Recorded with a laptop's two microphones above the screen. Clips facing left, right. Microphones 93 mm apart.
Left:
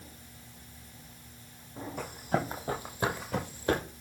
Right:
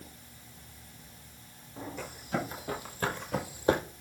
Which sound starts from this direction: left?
Running footsteps, at 2.0 s.